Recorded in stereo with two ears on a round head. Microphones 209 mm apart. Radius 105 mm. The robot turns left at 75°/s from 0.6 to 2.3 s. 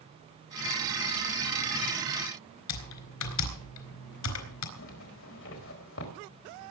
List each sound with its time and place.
2.7 s typing on a keyboard: 80° left, 4 m
4.8 s a zipper: 60° left (ahead or behind), 4.5 m